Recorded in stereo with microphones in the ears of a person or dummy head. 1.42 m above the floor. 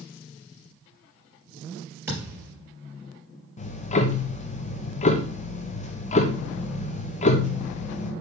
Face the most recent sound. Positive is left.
turn(degrees=45)  # may be behind; listen again after turning